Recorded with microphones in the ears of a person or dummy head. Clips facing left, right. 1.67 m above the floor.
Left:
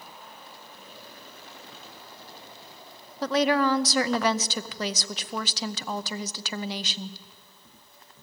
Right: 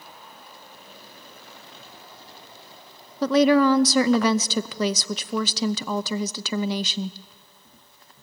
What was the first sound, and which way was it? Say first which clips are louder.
A woman speaking: right 6 dB; 75° right (ahead or behind).